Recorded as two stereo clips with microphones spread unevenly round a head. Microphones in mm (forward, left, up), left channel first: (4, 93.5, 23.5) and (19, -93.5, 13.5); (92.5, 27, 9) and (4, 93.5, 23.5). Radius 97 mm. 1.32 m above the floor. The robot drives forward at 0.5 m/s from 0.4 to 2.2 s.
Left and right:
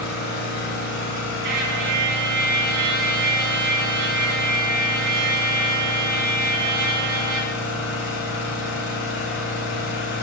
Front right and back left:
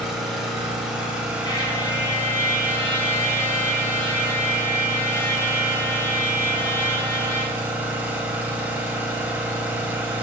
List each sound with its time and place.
0.0 s an engine running: 60° left, 4 m; by 10.2 s 70° left, 3.5 m
1.4 s a trumpet: 95° right, 1.7 m; by 7.5 s 110° right, 1.8 m